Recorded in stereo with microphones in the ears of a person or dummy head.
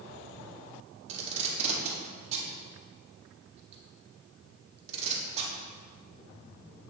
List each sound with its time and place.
1.1 s tape being pulled: 40° right (ahead or behind), 1.7 m